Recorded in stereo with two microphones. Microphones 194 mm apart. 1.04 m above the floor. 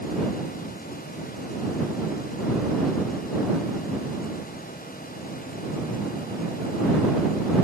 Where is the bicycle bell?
I don't hear a bicycle bell.